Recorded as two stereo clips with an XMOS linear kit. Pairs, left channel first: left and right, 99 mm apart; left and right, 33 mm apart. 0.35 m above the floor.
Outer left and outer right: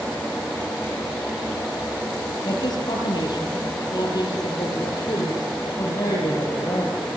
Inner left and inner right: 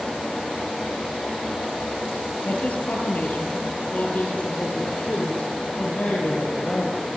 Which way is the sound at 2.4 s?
50° left (ahead or behind).